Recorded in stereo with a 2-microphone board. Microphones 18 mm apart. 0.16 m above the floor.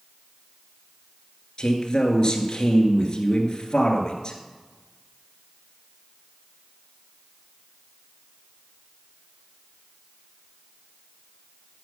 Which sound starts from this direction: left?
A man speaking, at 1.6 s.